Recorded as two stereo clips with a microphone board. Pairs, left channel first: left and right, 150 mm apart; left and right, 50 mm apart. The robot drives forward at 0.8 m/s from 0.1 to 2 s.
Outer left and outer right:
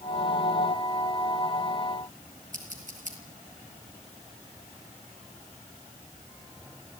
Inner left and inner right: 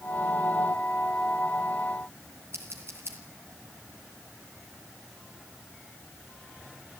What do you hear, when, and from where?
2.5 s scissors: 60° right (ahead or behind), 5.5 m